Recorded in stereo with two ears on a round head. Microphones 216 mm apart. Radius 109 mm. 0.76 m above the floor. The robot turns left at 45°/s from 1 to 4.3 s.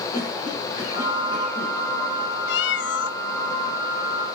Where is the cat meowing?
100° left, 0.6 m; by 3.2 s 70° left, 0.6 m.